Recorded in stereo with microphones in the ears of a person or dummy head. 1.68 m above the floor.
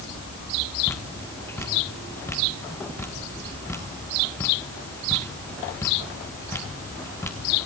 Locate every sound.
0.9 s dripping: 15° left (ahead or behind), 1.7 m